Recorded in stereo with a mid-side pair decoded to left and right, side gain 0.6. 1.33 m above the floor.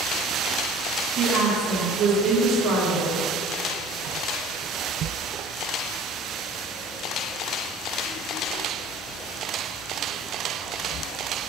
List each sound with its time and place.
1.2 s a woman speaking: 55° right, 3 m